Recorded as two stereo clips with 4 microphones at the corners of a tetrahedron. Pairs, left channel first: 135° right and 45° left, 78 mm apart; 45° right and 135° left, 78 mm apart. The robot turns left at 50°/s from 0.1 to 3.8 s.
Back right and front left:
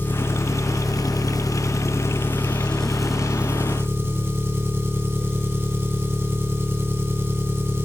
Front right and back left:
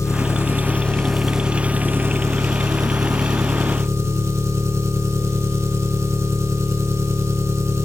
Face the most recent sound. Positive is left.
turn(degrees=95)